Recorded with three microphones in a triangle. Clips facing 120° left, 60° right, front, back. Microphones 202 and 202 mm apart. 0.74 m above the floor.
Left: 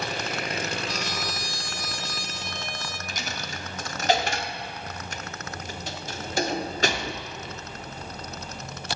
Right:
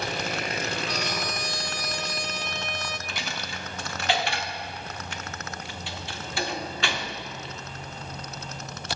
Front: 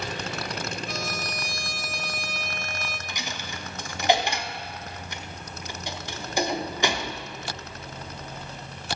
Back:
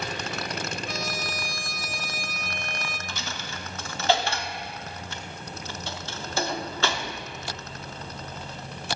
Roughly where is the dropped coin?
Left.